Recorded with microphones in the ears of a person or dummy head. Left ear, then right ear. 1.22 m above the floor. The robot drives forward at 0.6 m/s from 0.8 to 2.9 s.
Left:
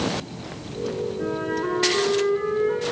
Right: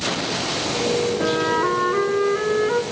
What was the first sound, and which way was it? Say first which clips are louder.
A flute: right 7 dB; 70° right (ahead or behind).